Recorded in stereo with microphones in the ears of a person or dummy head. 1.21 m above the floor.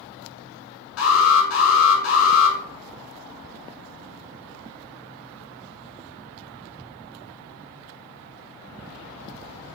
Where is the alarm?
75° left (ahead or behind), 4 m.